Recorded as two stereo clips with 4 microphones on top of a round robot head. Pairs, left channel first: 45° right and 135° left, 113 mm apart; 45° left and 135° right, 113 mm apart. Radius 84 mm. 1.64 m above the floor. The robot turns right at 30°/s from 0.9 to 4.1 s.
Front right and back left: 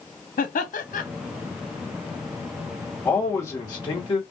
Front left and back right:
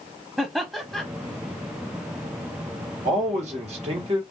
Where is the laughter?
50° right, 0.5 m.